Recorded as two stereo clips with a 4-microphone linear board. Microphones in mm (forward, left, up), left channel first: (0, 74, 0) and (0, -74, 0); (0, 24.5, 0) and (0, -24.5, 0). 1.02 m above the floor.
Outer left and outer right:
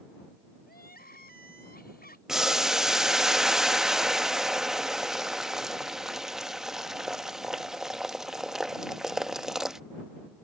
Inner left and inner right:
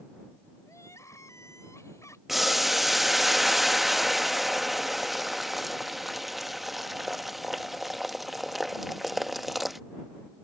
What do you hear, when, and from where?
0.7 s crying: 85° left
2.3 s boiling: 5° right (ahead or behind)